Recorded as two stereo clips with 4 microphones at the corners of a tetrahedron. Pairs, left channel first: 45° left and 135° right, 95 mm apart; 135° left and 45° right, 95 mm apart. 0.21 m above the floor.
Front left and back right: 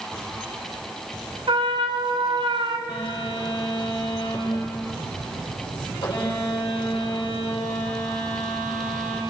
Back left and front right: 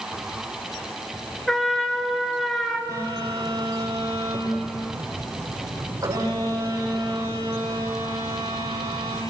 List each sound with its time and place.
1.5 s a trumpet: 140° right, 2 m
2.9 s a phone buzzing: 10° left, 8 m